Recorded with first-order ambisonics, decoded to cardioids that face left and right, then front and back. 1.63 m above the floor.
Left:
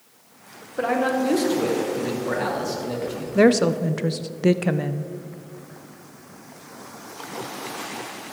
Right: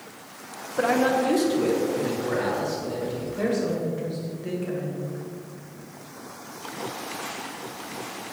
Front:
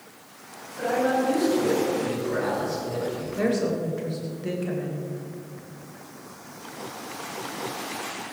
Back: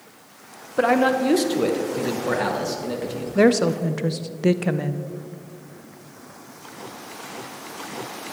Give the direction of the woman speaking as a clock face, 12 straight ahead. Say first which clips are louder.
Left 10 dB, back 8 dB; 8 o'clock.